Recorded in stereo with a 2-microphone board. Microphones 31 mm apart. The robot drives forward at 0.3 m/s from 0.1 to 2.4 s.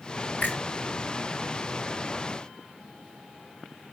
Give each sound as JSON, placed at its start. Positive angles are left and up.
{"t": 0.4, "sound": "a finger snap", "side_deg": 70, "distance_m": 2.5}